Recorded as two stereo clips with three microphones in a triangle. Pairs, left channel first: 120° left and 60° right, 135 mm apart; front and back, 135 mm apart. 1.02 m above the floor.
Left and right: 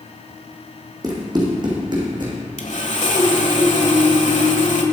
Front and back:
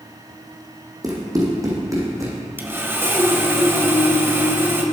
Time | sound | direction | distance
1.0 | running footsteps | 120° right | 3.5 m
2.6 | sawing | 110° left | 1.4 m